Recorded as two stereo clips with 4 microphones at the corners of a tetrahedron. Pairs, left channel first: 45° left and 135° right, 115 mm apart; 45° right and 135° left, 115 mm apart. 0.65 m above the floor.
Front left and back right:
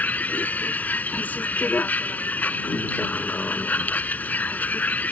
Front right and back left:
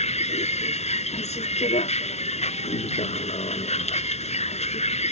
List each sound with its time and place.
0.0 s a vehicle: 30° right